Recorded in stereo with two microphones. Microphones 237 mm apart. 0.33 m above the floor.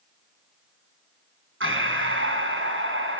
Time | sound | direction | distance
1.6 | breathing | 60° right (ahead or behind) | 4 m